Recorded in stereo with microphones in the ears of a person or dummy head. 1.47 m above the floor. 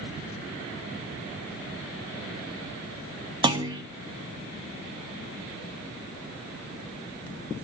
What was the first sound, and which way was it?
A clunk, 20° right (ahead or behind).